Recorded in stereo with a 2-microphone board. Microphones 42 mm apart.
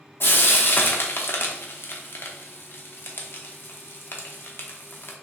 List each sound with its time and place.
0.2 s frying: 50° left (ahead or behind), 0.7 m